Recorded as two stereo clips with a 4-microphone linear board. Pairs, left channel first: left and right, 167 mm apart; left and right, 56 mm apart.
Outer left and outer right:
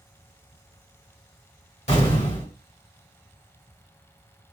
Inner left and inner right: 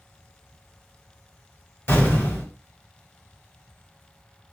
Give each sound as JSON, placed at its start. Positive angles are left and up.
{"t": 1.9, "sound": "an explosion", "side_deg": 40, "distance_m": 1.6}